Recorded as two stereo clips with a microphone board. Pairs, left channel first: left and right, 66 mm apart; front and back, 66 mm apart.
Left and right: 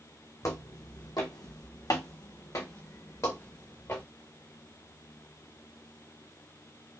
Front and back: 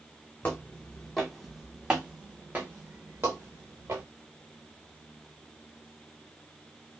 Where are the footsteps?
65° left, 1.2 m; by 4.0 s 140° left, 2.0 m.